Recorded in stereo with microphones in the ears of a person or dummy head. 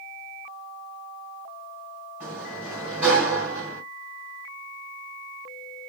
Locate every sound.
2.2 s a sliding door: 10° right (ahead or behind), 3 m